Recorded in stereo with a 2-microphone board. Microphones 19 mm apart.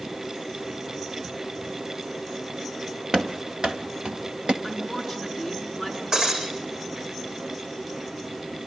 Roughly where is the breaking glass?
Right.